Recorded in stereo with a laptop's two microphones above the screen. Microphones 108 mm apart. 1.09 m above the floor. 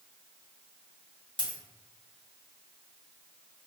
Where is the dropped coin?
45° left (ahead or behind), 0.8 m.